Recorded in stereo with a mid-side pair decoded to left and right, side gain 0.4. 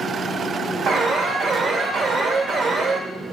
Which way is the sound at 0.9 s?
65° right.